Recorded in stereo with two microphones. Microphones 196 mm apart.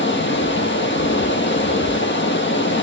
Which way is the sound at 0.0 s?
70° left (ahead or behind).